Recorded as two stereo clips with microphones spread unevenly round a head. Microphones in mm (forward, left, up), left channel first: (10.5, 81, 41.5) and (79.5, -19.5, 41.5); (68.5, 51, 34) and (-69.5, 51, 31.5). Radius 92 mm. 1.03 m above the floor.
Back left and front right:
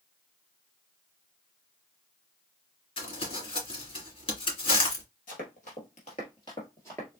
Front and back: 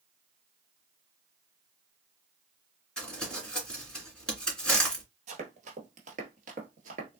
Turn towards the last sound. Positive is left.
turn(degrees=-150)